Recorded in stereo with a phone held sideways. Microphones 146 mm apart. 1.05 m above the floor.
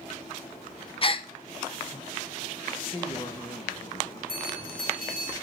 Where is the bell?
75° left (ahead or behind), 3 m.